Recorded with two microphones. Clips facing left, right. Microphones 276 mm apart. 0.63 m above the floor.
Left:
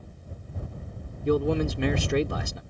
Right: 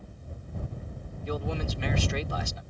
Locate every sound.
1.2 s a man speaking: 60° left (ahead or behind)